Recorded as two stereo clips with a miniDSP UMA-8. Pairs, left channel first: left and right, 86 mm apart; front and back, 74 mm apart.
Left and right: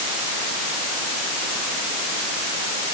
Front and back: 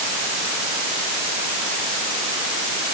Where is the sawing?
No sawing in this recording.